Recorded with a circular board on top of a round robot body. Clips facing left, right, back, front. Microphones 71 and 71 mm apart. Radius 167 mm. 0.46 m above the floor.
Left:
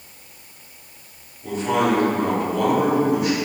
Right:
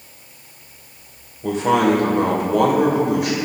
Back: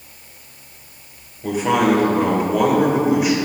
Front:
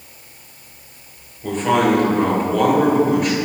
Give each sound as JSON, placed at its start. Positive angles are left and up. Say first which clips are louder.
{"t": 1.4, "sound": "a man speaking", "louder": "right 4 dB, even", "azimuth_deg": -100, "distance_m": 3.0}